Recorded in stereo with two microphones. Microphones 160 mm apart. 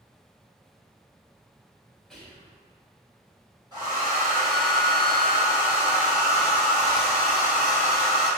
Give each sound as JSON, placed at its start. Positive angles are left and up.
{"t": 2.1, "sound": "whispering", "side_deg": 0, "distance_m": 1.6}
{"t": 3.7, "sound": "a hair dryer", "side_deg": -25, "distance_m": 1.3}